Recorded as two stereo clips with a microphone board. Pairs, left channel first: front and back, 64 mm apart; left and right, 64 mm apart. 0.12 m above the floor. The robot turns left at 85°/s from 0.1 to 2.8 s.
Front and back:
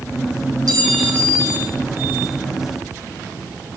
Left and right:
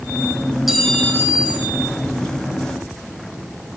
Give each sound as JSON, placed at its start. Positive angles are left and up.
{"t": 0.7, "sound": "a clink", "azimuth_deg": -175, "distance_m": 2.5}